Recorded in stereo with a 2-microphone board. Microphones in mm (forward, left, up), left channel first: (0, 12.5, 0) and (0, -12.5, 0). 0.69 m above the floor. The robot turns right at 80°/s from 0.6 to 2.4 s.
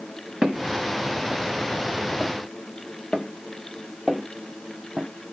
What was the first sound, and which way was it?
Footsteps, 45° right (ahead or behind).